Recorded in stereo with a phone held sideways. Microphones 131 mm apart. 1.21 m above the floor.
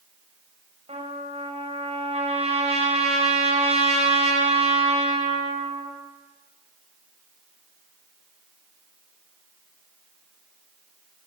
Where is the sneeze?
No sneeze in this recording.